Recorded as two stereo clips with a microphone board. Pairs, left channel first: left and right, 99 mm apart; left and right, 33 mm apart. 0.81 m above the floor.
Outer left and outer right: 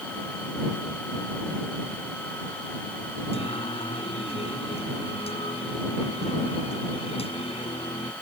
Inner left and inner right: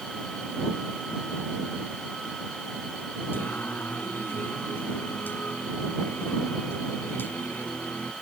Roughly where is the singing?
Left.